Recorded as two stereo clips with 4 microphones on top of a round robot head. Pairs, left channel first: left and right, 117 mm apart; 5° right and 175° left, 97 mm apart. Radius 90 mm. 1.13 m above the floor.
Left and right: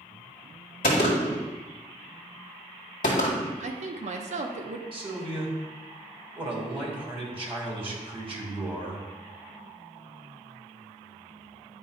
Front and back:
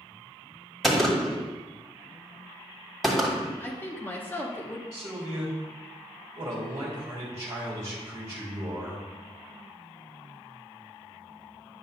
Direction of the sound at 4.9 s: 125° right.